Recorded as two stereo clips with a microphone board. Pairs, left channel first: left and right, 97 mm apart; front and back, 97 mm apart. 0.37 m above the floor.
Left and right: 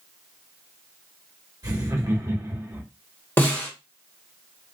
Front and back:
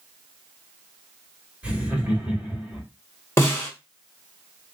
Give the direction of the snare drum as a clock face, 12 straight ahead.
11 o'clock.